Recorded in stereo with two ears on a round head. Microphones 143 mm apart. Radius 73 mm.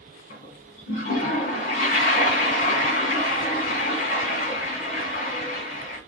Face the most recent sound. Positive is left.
turn(degrees=50)  # may be behind; listen again after turning